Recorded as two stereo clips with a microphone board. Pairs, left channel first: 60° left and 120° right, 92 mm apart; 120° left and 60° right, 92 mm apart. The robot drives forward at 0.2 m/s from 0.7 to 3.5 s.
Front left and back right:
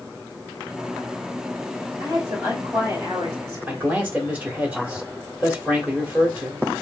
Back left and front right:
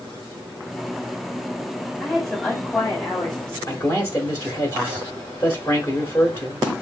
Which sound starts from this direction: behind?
A man speaking, at 3.7 s.